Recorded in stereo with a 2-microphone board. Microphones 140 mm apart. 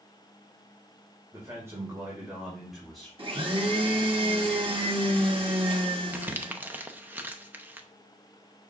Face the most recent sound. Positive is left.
turn(degrees=-15)  # may be behind; listen again after turning